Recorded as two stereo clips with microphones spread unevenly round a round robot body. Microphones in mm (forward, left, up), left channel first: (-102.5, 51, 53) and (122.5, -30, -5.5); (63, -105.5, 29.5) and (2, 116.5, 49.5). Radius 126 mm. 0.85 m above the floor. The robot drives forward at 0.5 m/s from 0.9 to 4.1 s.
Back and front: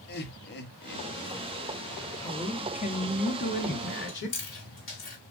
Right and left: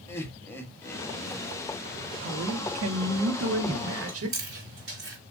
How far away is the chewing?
About 3.5 m.